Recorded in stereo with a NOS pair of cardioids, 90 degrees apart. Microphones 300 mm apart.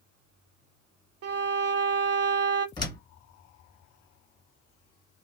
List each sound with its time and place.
1.2 s a violin: 55° right, 0.7 m
2.8 s a door slam: 15° left, 1.6 m